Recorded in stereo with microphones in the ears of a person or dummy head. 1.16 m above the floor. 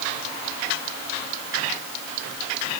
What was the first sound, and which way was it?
Only background noise.